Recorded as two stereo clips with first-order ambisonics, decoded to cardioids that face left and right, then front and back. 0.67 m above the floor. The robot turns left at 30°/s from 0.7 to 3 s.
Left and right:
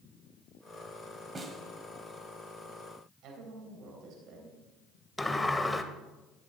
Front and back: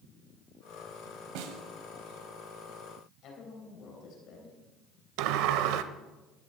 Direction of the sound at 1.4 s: 160° right.